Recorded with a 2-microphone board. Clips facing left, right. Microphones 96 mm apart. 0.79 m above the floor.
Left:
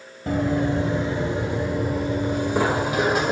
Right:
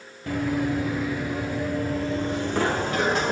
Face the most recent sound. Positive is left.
turn(degrees=5)  # may be behind; listen again after turning